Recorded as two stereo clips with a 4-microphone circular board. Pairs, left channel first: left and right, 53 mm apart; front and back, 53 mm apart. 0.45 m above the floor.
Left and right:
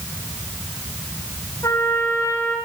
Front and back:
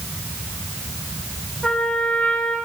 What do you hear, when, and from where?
1.6 s a trumpet: 75° left, 8 m